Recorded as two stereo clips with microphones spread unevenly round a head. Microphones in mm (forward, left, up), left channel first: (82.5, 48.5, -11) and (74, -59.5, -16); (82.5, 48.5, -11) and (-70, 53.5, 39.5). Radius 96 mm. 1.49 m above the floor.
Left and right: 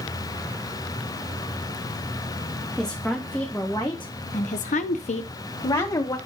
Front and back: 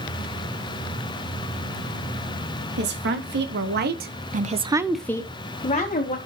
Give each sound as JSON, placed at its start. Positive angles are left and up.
{"t": 2.8, "sound": "a woman speaking", "azimuth_deg": 175, "distance_m": 2.5}